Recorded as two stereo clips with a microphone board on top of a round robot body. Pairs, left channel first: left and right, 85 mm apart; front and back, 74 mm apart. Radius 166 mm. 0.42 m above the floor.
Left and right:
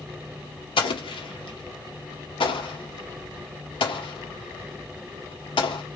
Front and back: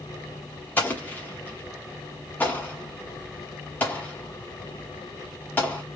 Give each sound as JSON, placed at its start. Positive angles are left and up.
{"t": 0.8, "sound": "an explosion", "azimuth_deg": 65, "distance_m": 1.3}